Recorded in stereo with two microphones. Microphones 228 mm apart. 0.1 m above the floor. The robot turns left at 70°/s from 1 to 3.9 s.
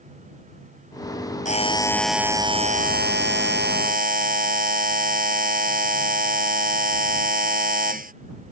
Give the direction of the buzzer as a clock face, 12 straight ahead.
11 o'clock.